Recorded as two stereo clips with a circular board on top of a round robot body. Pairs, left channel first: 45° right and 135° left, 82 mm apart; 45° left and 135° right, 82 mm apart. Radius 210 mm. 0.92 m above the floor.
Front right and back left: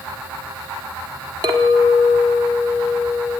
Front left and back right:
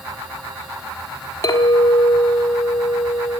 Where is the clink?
95° left, 1.4 m.